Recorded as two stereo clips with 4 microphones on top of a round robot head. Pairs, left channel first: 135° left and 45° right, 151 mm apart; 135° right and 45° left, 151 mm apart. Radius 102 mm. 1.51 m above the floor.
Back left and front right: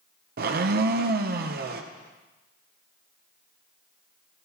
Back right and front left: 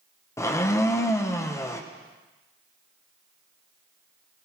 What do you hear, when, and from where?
0.4 s a blender: 65° right, 0.7 m